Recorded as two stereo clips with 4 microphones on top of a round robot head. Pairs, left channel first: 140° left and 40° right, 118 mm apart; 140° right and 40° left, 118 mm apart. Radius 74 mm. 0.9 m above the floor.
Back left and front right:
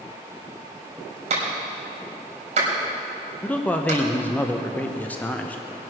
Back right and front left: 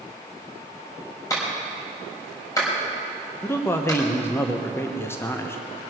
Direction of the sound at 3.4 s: 165° right.